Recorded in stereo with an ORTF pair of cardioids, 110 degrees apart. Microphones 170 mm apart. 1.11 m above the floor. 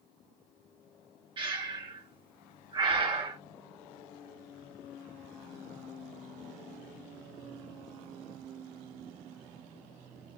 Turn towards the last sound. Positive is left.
turn(degrees=-30)